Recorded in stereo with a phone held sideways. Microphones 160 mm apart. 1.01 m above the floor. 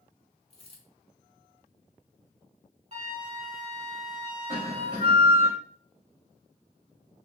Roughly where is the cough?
Right.